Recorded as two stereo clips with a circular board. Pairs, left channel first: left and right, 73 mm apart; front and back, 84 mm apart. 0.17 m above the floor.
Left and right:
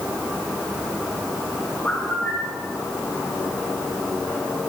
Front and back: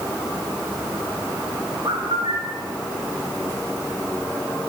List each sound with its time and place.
1.9 s a bird: 160° left, 7.5 m